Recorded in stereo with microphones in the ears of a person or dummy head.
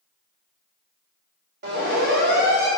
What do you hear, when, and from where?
1.6 s a siren: 55° right (ahead or behind), 5.5 m; by 2.7 s 60° right (ahead or behind), 5.5 m